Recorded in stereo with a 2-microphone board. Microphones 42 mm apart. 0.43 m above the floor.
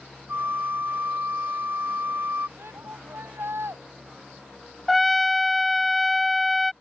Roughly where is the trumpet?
Centre.